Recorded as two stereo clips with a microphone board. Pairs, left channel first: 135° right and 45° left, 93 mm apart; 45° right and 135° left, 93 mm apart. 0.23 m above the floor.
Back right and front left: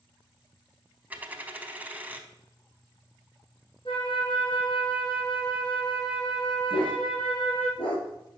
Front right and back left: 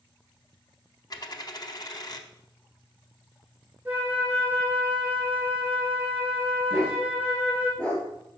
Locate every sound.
1.1 s a dropped coin: 25° right, 0.6 m
3.9 s a flute: 150° right, 2 m
6.7 s a dog barking: 125° right, 2 m